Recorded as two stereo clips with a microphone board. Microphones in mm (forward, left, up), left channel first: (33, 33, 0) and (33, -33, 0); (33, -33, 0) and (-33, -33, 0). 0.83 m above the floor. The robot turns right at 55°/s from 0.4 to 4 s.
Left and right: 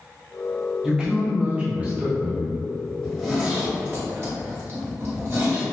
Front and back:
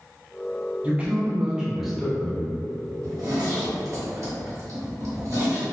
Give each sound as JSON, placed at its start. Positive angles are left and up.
{"t": 0.8, "sound": "a man speaking", "azimuth_deg": -155, "distance_m": 0.6}
{"t": 3.0, "sound": "a zipper", "azimuth_deg": 170, "distance_m": 1.1}